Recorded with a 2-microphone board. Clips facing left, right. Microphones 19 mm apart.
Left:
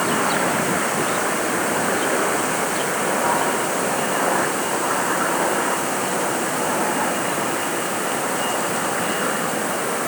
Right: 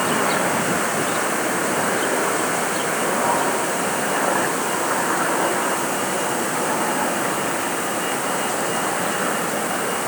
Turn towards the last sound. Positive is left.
No sound to turn to.